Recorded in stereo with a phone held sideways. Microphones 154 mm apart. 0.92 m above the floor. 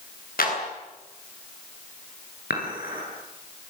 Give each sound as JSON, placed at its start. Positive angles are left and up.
{"t": 0.4, "sound": "a clap", "side_deg": 70, "distance_m": 9.5}
{"t": 2.5, "sound": "dishes clattering", "side_deg": 75, "distance_m": 9.5}